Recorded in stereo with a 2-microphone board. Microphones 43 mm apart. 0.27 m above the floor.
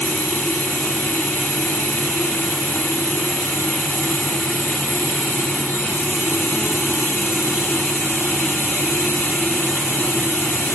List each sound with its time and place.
0.0 s running water: 75° left (ahead or behind), 2 m